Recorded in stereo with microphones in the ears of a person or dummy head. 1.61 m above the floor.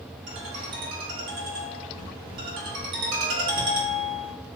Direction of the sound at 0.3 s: 55° right (ahead or behind).